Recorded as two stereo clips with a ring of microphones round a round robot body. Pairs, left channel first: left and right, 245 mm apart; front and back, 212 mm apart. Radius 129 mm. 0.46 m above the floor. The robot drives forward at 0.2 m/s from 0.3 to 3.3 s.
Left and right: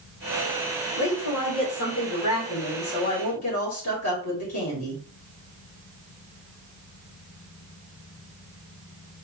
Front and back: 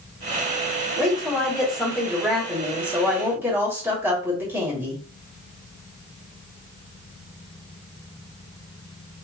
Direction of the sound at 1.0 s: 90° left.